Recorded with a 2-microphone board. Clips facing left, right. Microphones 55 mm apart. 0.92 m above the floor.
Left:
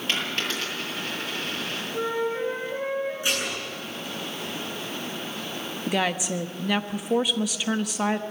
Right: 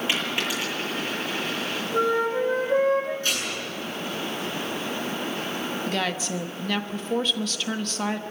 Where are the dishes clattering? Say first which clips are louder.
Left 1 dB; 15° left (ahead or behind), 8.5 m.